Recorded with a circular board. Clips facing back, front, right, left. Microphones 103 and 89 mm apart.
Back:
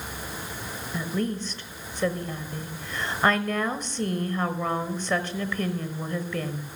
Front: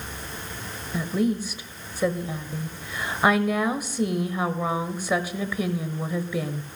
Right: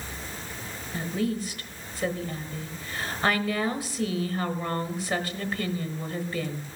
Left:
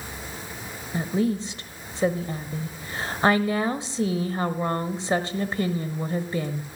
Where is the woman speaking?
70° left, 0.9 m.